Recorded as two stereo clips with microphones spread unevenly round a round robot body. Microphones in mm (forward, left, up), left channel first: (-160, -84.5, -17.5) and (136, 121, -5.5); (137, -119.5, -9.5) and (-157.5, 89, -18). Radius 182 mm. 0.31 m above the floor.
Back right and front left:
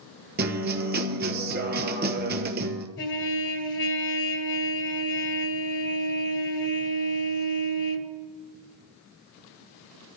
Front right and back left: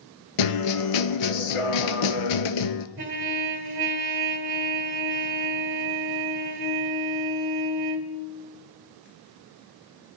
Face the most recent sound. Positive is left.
turn(degrees=180)